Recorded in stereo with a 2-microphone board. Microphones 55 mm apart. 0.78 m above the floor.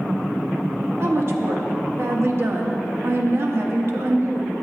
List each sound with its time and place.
1.0 s a woman speaking: 50° right (ahead or behind), 0.9 m